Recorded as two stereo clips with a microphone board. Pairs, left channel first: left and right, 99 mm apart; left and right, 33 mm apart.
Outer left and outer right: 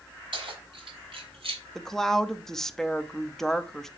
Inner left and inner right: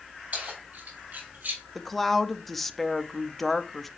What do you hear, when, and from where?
0.3 s keys jangling: 60° right (ahead or behind), 4 m; by 1.6 s 70° right (ahead or behind), 3 m
1.8 s a woman speaking: 5° left (ahead or behind), 0.8 m